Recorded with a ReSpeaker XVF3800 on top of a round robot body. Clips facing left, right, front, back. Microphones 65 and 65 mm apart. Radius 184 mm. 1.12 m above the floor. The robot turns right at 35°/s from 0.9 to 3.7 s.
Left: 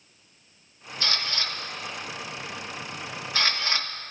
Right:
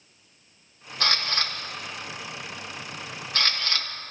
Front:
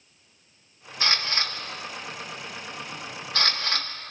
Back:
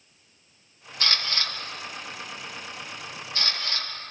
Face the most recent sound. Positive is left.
turn(degrees=20)